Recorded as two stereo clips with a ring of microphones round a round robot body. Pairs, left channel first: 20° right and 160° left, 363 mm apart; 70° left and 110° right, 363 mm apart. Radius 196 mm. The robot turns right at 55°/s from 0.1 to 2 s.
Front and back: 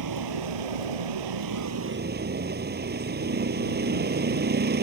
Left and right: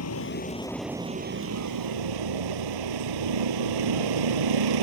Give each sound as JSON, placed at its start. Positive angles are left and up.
{"t": 0.0, "sound": "a vehicle", "azimuth_deg": 120}